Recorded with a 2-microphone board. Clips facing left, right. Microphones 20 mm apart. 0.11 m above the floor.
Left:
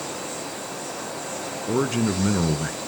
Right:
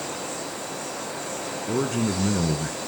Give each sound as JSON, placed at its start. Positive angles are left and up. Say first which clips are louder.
{"t": 1.7, "sound": "a man speaking", "louder": "left 2 dB", "side_deg": 25, "distance_m": 1.5}